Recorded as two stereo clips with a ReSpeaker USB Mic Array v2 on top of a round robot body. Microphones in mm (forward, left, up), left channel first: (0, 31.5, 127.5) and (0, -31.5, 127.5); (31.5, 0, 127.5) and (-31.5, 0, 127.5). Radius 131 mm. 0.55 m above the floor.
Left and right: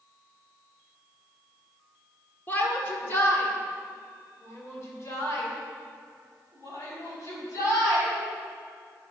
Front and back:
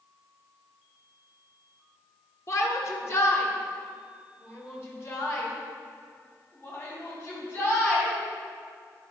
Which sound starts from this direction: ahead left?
A shout, at 2.5 s.